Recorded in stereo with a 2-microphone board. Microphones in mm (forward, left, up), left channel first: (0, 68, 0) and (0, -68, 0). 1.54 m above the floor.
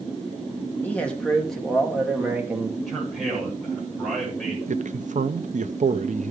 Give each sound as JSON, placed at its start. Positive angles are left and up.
{"t": 0.8, "sound": "a man speaking", "side_deg": 10, "distance_m": 2.5}
{"t": 2.9, "sound": "a man speaking", "side_deg": 0, "distance_m": 8.0}
{"t": 4.7, "sound": "a man speaking", "side_deg": -65, "distance_m": 0.7}